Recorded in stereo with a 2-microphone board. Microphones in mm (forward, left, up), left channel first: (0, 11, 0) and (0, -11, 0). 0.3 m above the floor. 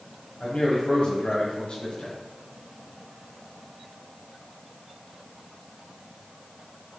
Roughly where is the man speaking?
Left.